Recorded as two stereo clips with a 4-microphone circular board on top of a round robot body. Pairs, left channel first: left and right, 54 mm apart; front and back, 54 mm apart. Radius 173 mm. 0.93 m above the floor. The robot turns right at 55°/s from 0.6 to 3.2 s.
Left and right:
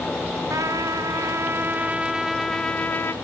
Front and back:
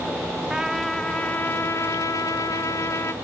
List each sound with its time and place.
0.5 s a trumpet: 100° right, 0.9 m; by 3.1 s 40° left, 0.9 m